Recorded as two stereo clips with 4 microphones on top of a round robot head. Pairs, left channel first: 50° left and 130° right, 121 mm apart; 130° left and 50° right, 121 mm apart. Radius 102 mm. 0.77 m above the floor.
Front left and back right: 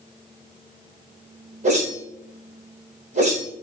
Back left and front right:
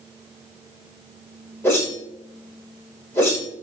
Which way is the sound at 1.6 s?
155° right.